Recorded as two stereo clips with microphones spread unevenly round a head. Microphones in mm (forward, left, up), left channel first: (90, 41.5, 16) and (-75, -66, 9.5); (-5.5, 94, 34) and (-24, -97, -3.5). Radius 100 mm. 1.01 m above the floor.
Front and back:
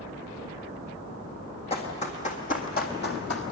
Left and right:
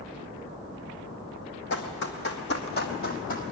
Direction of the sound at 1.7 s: 90° left.